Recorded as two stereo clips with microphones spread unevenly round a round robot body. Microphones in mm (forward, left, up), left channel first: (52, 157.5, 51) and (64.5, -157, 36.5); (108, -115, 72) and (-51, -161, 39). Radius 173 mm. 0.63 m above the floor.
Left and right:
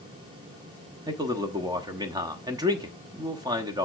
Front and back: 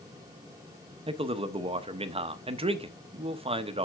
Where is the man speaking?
160° right, 1.0 m.